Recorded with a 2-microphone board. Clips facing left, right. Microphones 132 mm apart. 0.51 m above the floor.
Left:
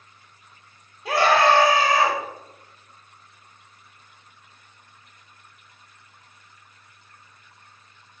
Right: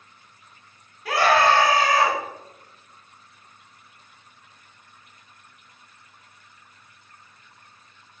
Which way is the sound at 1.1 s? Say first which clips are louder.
Left 1 dB; 20° left (ahead or behind).